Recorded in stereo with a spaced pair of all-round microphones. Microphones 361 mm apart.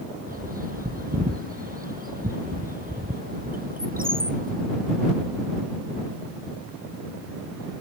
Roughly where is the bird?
Right.